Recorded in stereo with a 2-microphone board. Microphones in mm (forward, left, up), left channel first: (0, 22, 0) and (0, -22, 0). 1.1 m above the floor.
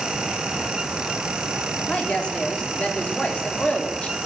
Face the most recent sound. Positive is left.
turn(degrees=25)  # may be behind; listen again after turning